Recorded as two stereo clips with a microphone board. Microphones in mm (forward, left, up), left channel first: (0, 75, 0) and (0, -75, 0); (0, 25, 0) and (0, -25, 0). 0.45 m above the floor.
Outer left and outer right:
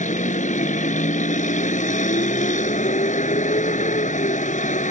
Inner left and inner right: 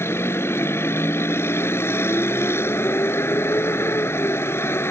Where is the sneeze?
I don't hear a sneeze.